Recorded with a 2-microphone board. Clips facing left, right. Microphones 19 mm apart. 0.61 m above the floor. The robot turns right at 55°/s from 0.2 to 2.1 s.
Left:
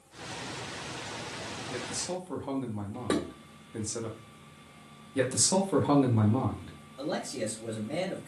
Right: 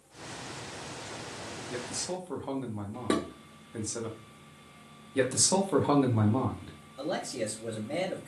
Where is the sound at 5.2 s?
15° right (ahead or behind), 0.7 m.